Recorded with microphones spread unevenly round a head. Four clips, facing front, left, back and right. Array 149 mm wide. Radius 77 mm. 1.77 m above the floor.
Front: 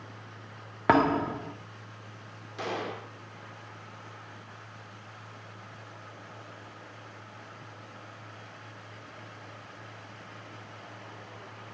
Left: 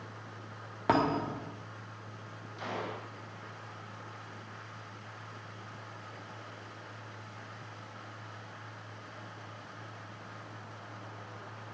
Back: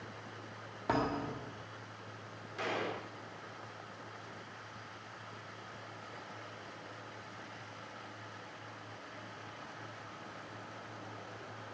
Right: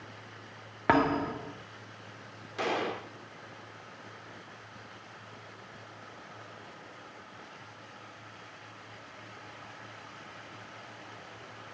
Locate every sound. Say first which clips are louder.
0.9 s a thud: right 2 dB, front 11 dB; 10° right, 1.7 m
2.6 s a gunshot: right 7 dB, front 3 dB; 75° right, 4.5 m